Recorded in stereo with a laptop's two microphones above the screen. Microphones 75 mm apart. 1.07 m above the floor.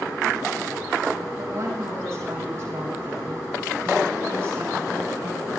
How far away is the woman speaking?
About 7 m.